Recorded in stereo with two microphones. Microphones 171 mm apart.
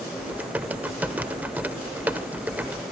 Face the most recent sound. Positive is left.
turn(degrees=-10)  # may be behind; listen again after turning